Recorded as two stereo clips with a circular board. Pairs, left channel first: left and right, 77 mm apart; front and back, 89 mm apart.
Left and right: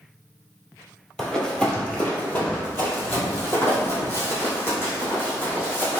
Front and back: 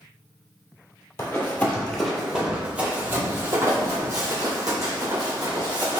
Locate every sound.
1.2 s running footsteps: 10° left, 1.2 m; by 6.0 s 150° left, 3 m